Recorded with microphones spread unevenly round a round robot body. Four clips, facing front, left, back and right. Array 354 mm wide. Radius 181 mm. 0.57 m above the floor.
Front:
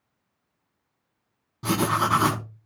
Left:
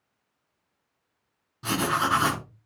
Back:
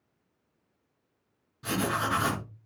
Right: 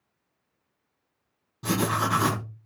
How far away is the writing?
About 3.5 m.